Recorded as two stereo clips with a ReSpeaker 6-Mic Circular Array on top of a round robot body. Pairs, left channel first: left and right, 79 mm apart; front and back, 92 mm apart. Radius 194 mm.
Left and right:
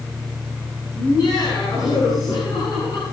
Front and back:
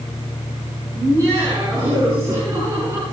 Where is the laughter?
125° left, 9.5 m.